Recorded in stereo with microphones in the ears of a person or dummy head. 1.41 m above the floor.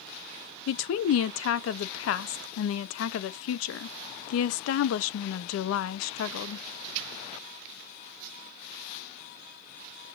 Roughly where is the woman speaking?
Left.